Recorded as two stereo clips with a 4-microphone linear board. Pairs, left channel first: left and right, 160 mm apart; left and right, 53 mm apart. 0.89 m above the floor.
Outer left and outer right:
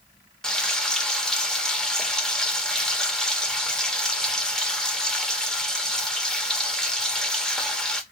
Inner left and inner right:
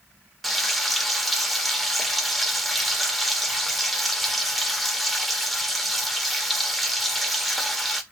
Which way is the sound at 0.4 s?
5° left (ahead or behind).